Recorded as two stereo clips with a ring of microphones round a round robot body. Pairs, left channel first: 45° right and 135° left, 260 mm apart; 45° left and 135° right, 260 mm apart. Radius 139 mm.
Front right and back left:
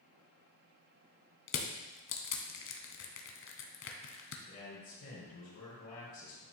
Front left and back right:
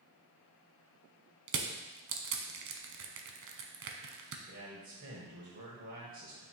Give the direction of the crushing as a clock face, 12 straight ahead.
3 o'clock.